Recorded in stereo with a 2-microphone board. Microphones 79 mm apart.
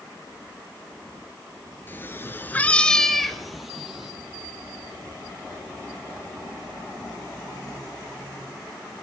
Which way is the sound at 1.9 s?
25° left (ahead or behind).